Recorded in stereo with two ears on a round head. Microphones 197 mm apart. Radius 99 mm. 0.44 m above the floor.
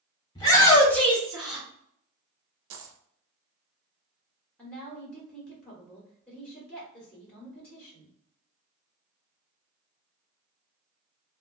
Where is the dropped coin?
60° right (ahead or behind), 0.7 m.